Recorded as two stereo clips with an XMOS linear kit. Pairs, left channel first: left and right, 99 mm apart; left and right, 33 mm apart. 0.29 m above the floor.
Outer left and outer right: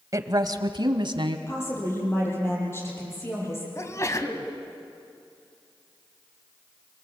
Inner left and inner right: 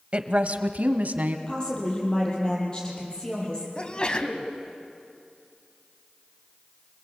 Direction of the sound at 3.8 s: 35° left (ahead or behind).